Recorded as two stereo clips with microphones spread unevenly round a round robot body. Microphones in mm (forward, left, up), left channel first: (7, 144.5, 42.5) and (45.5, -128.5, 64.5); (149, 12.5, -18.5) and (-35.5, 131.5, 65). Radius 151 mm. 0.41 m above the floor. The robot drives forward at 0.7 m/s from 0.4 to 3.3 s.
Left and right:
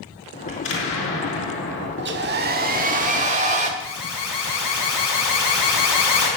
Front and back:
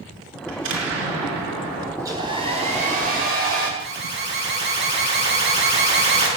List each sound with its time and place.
0.5 s an explosion: 145° left, 5 m; by 1.9 s 150° left, 6 m
2.0 s a hair dryer: 120° right, 1.5 m; by 3.7 s 145° right, 2 m
3.8 s an alarm: 100° left, 5 m